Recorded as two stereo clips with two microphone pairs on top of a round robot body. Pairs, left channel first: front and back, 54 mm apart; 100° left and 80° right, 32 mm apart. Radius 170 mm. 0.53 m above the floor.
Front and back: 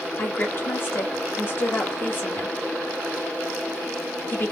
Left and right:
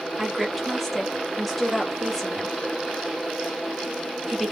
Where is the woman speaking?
15° left, 1.5 m.